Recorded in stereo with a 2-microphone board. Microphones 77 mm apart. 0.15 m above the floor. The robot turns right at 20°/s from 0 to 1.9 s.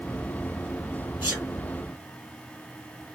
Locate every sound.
1.2 s a sneeze: 30° right (ahead or behind), 5 m; by 1.5 s 25° right (ahead or behind), 5 m